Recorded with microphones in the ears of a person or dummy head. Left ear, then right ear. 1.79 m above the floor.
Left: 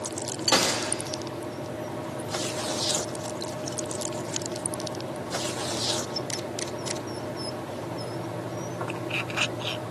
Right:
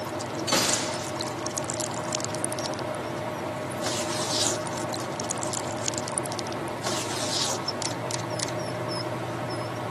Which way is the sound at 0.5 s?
35° left (ahead or behind).